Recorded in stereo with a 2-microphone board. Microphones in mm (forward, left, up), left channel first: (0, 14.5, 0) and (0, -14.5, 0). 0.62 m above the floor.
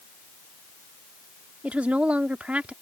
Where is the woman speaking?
50° right (ahead or behind).